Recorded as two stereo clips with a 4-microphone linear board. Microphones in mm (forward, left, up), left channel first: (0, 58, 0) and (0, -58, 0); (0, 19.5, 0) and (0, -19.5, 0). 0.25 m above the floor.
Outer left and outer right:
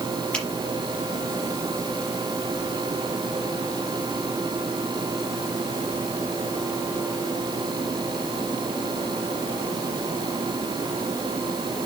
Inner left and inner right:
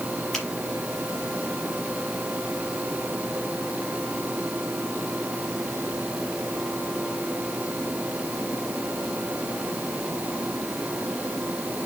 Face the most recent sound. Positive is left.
turn(degrees=10)  # may be behind; listen again after turning